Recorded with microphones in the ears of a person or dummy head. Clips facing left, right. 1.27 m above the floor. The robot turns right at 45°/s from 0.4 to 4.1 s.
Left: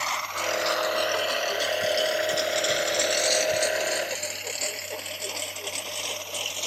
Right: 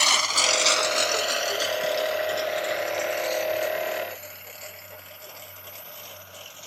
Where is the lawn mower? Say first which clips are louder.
Right 2 dB; 60° right (ahead or behind); by 6.7 s 85° left.